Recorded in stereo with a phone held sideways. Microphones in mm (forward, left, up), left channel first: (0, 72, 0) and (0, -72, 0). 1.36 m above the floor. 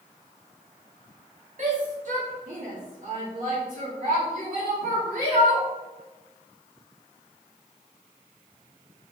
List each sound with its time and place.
1.6 s a shout: 55° right (ahead or behind), 2 m; by 5.7 s 75° right (ahead or behind), 6 m